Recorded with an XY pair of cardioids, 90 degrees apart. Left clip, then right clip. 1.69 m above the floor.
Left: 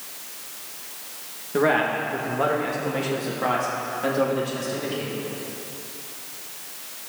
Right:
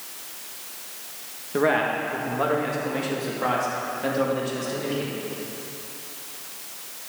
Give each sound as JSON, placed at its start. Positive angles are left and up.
{"t": 1.5, "sound": "a man speaking", "azimuth_deg": 0, "distance_m": 2.0}